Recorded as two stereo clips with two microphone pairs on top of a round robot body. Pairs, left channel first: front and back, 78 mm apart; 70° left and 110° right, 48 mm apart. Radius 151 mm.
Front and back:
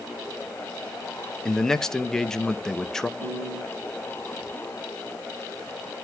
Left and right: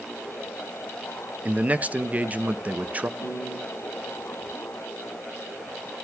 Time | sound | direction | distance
1.4 | a man speaking | 70° right | 0.7 m
3.2 | a piano | 155° right | 2.5 m